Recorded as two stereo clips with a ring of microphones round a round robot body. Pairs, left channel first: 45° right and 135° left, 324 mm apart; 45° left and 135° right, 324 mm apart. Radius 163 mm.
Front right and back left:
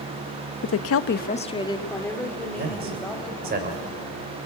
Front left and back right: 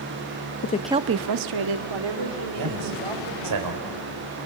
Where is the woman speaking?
Straight ahead, 0.7 m; by 3.6 s 135° right, 4.5 m.